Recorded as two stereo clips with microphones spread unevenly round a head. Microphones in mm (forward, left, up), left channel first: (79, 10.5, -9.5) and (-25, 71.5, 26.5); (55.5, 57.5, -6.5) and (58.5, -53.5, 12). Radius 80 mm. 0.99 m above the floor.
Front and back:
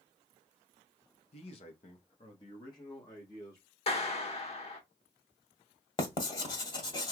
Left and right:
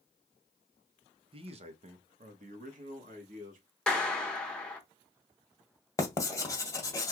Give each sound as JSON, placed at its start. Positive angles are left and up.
{"t": 1.3, "sound": "a man speaking", "azimuth_deg": -50, "distance_m": 0.7}
{"t": 3.9, "sound": "a clap", "azimuth_deg": 10, "distance_m": 1.2}
{"t": 6.0, "sound": "writing", "azimuth_deg": 25, "distance_m": 1.3}